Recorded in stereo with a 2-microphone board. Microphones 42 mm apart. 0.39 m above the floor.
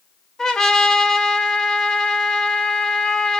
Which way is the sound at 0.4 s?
15° left (ahead or behind).